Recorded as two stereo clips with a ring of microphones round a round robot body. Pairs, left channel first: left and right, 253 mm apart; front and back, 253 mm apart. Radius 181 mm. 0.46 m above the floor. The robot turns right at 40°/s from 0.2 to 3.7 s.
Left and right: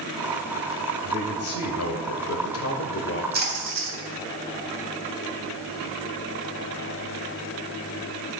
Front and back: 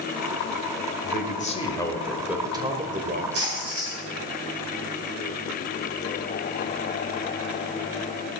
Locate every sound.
1.0 s a man speaking: 45° left, 1.6 m; by 3.2 s 135° left, 1.6 m
3.3 s a splash: 140° right, 3.5 m; by 4.0 s 125° right, 3.5 m